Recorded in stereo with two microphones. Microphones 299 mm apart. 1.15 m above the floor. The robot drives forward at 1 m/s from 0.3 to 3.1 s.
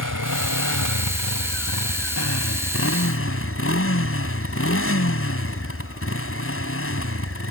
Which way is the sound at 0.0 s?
80° left.